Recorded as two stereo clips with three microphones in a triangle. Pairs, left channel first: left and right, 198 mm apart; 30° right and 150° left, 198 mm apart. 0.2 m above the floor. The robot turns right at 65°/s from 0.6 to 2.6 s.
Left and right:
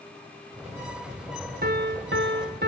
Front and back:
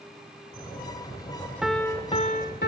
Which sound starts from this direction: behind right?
A piano, at 1.6 s.